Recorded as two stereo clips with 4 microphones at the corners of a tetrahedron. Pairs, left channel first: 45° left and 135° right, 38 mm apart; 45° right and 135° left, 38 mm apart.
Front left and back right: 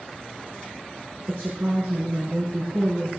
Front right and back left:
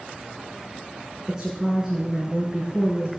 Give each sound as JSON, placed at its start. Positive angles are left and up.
{"t": 1.3, "sound": "a woman speaking", "azimuth_deg": -150, "distance_m": 5.0}